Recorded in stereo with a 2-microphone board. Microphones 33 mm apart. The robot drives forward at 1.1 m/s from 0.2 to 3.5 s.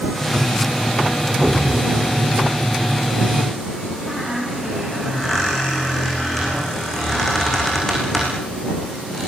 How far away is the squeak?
About 7.5 m.